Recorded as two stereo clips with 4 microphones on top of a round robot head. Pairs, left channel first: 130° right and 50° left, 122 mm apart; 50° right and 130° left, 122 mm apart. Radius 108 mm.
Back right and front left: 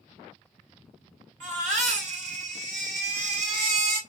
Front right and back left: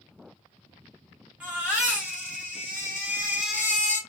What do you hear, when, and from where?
1.4 s a baby crying: 55° left, 3 m